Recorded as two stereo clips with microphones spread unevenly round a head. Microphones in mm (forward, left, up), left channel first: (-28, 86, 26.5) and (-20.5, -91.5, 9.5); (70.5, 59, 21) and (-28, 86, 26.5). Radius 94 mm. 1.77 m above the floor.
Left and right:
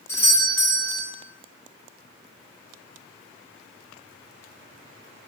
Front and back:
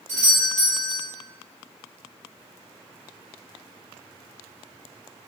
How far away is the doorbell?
About 1.4 m.